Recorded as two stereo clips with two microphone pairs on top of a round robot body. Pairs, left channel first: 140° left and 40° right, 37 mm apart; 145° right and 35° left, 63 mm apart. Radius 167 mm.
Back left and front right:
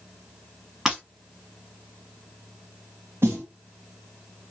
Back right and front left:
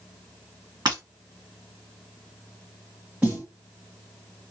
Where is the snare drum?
30° right, 0.8 m.